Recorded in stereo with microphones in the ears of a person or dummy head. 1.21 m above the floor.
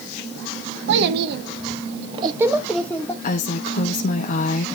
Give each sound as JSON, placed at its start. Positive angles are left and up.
{"t": 0.9, "sound": "a child speaking", "side_deg": -75, "distance_m": 1.3}
{"t": 3.2, "sound": "a woman speaking", "side_deg": 50, "distance_m": 0.8}